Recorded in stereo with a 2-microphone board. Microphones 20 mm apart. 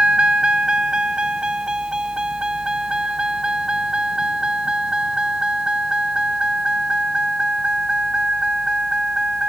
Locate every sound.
0.0 s a vehicle: 50° right (ahead or behind); by 9.5 s 45° right (ahead or behind)